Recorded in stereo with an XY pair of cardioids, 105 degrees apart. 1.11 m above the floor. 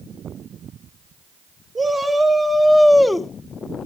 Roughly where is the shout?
Ahead.